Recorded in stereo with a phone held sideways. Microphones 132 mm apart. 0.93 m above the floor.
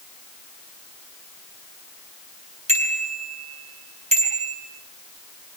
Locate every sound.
2.7 s a bicycle bell: 55° right (ahead or behind), 8 m